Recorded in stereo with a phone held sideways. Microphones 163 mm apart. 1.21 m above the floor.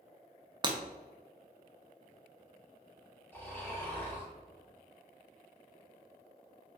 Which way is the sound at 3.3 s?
15° left (ahead or behind).